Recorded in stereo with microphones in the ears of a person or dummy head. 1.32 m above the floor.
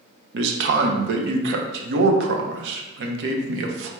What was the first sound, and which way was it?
A man speaking, 75° right (ahead or behind).